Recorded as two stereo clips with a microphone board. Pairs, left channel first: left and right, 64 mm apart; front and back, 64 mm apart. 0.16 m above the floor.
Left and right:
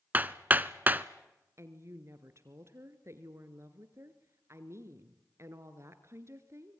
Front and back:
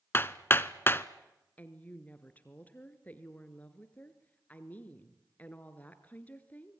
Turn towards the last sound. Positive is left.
turn(degrees=-60)